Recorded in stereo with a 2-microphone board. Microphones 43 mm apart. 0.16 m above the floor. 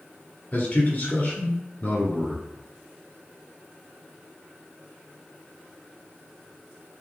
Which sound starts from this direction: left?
A man speaking, at 0.5 s.